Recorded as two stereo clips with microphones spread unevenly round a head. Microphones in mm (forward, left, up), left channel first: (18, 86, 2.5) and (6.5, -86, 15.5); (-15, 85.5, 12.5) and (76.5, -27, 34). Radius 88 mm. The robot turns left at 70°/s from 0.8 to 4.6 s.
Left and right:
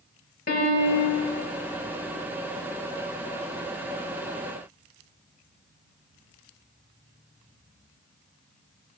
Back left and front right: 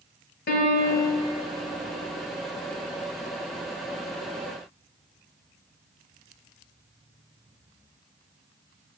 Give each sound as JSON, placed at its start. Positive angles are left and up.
{"t": 0.5, "sound": "a piano", "azimuth_deg": 125, "distance_m": 1.1}